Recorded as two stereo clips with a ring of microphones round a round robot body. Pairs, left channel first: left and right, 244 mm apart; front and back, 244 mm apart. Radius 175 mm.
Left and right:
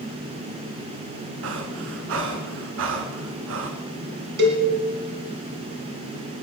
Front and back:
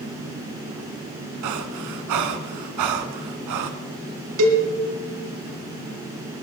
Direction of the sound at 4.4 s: 145° right.